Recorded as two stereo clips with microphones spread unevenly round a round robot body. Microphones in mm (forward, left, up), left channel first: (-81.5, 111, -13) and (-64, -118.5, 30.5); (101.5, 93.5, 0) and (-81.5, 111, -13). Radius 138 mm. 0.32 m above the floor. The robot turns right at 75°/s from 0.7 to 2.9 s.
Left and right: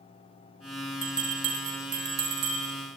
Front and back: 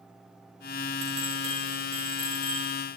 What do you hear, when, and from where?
1.0 s a bell: 175° right, 3 m; by 2.8 s 45° right, 3 m